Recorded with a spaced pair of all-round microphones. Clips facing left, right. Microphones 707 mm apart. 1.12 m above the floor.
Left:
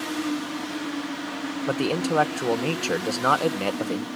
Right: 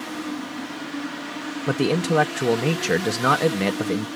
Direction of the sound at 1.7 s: 50° right (ahead or behind).